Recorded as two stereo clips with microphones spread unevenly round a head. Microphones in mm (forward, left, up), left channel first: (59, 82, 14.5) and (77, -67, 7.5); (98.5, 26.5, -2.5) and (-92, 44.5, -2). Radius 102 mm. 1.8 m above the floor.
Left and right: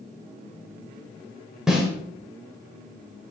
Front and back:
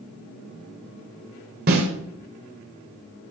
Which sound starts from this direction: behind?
A snare drum, at 1.7 s.